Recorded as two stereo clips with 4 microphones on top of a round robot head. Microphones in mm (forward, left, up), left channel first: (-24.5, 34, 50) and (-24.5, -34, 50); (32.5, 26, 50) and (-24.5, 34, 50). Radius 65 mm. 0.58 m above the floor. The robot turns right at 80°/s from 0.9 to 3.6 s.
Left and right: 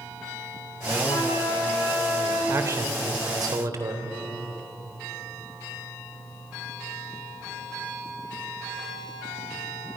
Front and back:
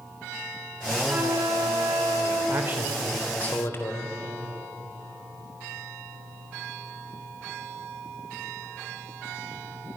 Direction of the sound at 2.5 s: 145° right.